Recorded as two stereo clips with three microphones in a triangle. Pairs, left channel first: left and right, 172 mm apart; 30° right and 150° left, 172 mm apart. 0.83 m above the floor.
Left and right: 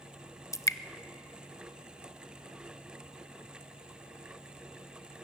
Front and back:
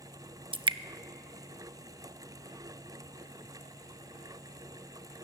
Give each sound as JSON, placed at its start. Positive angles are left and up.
{"t": 0.5, "sound": "dripping", "azimuth_deg": 140, "distance_m": 0.6}